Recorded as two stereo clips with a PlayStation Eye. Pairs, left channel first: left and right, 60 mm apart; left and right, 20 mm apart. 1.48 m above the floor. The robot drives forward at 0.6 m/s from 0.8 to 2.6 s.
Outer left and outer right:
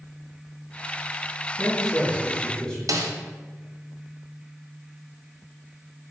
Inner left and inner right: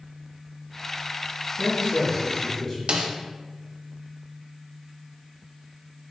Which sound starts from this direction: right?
A snare drum, at 2.9 s.